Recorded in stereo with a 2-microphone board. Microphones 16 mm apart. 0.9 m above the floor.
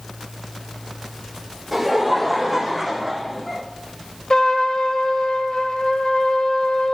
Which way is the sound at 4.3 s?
60° left (ahead or behind).